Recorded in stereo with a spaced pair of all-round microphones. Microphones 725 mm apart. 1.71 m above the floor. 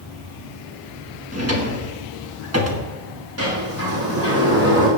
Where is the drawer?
20° right (ahead or behind), 1.4 m.